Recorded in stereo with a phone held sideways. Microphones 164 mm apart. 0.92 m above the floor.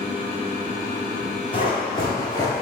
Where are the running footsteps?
30° left (ahead or behind), 1.4 m; by 2.6 s 20° left (ahead or behind), 0.9 m.